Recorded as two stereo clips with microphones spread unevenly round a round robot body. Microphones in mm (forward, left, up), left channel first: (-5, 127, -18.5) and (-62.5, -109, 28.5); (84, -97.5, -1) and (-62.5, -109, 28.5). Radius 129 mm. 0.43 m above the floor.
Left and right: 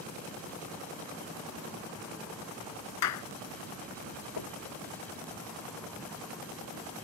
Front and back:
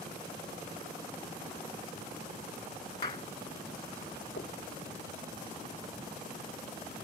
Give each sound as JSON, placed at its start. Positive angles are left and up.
{"t": 3.0, "sound": "a clap", "azimuth_deg": 80}
{"t": 4.4, "sound": "knocking", "azimuth_deg": 60}